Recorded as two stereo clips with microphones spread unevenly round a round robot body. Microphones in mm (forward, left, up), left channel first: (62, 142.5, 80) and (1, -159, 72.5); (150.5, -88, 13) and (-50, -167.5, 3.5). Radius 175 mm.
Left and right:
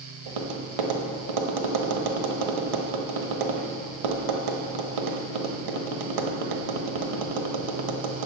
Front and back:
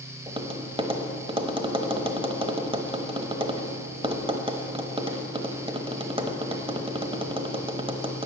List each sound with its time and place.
0.3 s tapping: 90° right, 1.1 m